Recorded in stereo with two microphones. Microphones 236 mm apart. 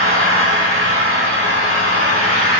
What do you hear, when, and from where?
0.0 s an engine running: 75° left (ahead or behind), 3 m